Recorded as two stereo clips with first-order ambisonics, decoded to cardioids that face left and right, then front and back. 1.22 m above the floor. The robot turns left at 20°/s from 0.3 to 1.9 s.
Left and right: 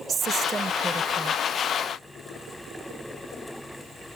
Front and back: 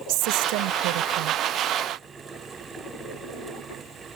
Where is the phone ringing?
I don't hear a phone ringing.